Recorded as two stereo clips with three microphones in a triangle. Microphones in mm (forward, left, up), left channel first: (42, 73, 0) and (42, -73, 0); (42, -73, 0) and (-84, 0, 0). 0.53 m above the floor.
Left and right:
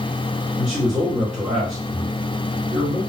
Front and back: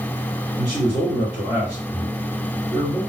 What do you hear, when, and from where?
0.6 s a man speaking: 15° right, 1.6 m